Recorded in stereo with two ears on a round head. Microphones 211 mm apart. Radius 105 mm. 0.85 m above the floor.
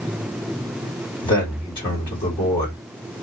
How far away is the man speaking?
About 2 m.